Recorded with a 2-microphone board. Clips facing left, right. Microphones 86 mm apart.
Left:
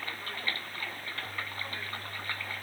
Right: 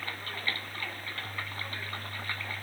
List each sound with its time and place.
Only background noise.